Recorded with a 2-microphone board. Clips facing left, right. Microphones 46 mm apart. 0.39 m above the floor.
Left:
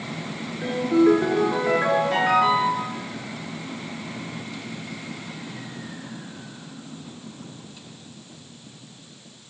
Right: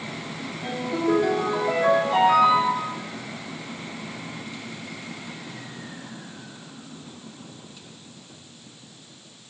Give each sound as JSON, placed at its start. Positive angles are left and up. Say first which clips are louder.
{"t": 0.6, "sound": "a ringtone", "louder": "left 8 dB", "side_deg": 55, "distance_m": 2.5}